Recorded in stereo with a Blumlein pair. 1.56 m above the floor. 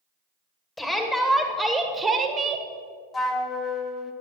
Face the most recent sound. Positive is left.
turn(degrees=20)